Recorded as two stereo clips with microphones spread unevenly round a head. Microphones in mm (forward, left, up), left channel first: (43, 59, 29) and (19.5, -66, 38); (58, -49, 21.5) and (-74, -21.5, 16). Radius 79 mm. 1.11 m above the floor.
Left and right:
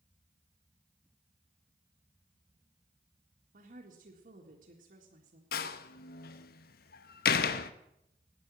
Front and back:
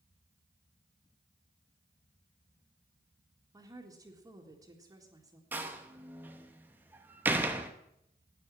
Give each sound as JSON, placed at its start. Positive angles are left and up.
{"t": 3.5, "sound": "a woman speaking", "azimuth_deg": -125, "distance_m": 2.0}
{"t": 5.5, "sound": "a door slam", "azimuth_deg": 90, "distance_m": 0.8}